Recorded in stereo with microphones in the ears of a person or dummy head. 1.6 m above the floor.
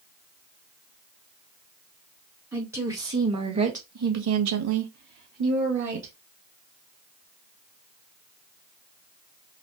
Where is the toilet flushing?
No toilet flushing in this recording.